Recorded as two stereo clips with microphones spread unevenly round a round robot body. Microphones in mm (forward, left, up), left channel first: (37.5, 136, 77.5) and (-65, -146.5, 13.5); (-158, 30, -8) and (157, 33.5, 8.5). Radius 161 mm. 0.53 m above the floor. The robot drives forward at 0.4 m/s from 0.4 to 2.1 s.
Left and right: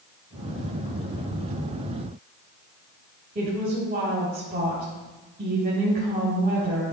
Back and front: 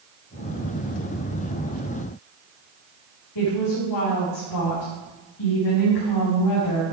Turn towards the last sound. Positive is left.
turn(degrees=-170)